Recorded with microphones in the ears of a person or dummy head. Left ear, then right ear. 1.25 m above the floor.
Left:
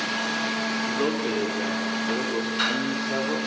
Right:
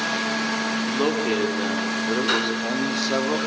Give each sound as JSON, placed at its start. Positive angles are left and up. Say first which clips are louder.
{"t": 0.9, "sound": "a man speaking", "louder": "right 3 dB", "side_deg": -10, "distance_m": 4.5}